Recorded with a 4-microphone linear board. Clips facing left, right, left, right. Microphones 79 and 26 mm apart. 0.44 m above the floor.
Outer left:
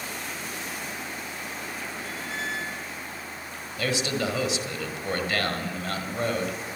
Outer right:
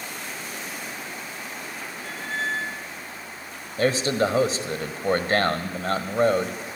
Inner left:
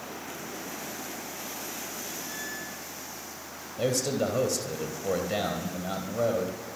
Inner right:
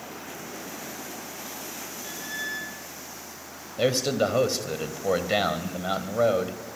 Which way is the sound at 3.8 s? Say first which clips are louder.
Outer right 6 dB, inner right 4 dB; 40° right (ahead or behind).